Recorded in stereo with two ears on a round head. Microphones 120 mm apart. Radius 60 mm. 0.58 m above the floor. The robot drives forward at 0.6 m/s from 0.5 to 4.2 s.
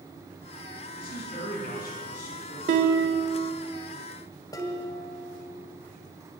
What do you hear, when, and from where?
0.9 s a man speaking: 80° left, 5.5 m; by 2.6 s 75° left (ahead or behind), 5.5 m
2.7 s a guitar: 60° right (ahead or behind), 1.2 m; by 3.5 s 45° right (ahead or behind), 1.5 m
4.5 s dishes clattering: 30° left (ahead or behind), 2 m